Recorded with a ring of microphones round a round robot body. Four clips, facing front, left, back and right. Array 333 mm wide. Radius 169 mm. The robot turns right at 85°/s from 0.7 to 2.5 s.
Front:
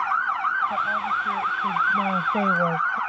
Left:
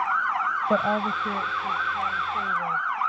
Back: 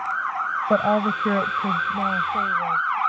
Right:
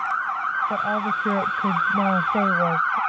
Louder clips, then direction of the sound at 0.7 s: Even, back 5 dB; 155° left.